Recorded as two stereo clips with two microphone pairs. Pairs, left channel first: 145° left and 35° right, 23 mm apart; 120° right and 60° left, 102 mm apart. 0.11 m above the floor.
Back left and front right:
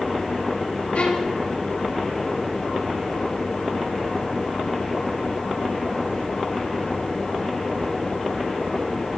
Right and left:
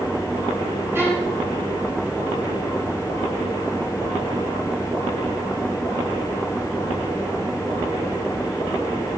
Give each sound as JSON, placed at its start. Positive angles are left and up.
{"t": 0.9, "sound": "a violin", "azimuth_deg": 125, "distance_m": 6.0}